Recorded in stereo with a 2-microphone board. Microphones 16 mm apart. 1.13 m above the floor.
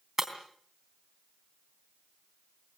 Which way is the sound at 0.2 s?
25° right (ahead or behind).